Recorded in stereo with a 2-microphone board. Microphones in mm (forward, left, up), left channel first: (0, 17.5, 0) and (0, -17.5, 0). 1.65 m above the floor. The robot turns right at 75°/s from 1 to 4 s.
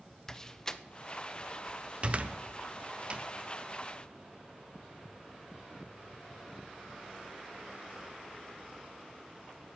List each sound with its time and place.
0.3 s a door slam: 20° left (ahead or behind), 0.5 m; by 3.3 s 25° right (ahead or behind), 0.5 m